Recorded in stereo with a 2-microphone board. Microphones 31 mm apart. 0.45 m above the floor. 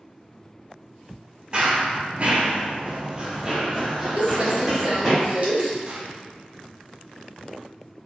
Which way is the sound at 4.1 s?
50° right (ahead or behind).